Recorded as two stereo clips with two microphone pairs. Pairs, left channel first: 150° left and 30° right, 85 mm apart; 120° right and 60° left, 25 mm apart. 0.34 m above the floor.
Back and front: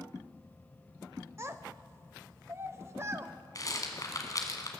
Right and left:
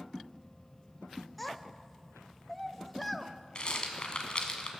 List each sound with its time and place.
1.4 s a child speaking: 40° right, 0.7 m
3.5 s a rattle: 165° right, 1.5 m